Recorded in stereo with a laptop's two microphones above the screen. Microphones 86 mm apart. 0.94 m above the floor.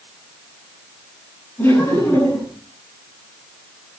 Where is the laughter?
25° left (ahead or behind), 9 m.